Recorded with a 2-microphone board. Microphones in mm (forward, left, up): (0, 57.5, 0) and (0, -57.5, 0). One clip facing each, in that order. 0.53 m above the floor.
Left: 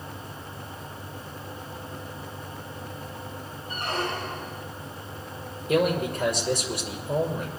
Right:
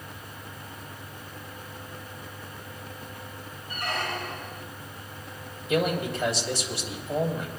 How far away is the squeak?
About 1.0 m.